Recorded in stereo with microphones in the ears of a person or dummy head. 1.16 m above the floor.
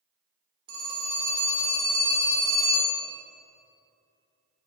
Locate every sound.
0.7 s a phone ringing: 75° right (ahead or behind), 1.7 m